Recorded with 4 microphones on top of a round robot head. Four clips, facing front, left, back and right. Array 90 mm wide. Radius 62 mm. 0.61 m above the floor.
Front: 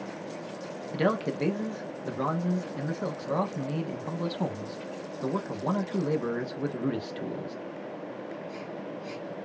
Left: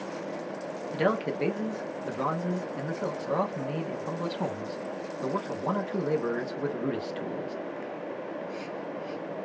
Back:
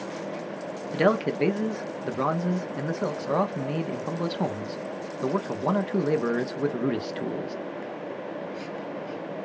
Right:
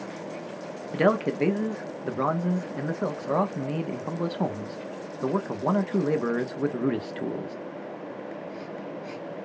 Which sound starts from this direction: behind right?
A man speaking, at 0.9 s.